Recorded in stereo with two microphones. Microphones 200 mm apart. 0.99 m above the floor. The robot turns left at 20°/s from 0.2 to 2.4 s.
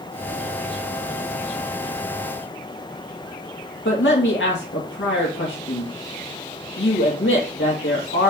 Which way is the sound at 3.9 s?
65° left (ahead or behind).